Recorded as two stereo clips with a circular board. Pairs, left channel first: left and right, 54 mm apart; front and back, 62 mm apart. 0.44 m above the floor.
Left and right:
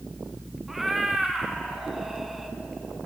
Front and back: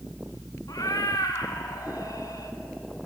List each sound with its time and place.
0.7 s a cat meowing: 5° right, 1.4 m